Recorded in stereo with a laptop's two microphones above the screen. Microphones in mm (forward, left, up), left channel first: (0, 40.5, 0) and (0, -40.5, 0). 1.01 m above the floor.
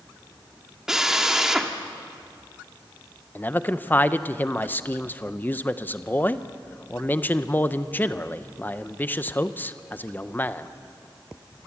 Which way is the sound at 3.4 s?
20° left (ahead or behind).